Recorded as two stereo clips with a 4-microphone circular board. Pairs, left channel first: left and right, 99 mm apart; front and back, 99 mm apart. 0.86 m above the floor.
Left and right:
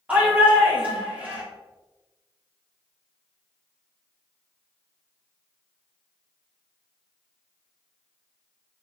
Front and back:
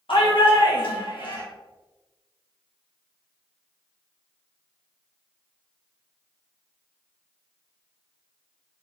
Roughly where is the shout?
Ahead.